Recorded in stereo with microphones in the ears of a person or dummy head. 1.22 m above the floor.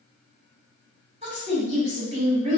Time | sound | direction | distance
1.2 | a woman speaking | 30° right (ahead or behind) | 1.5 m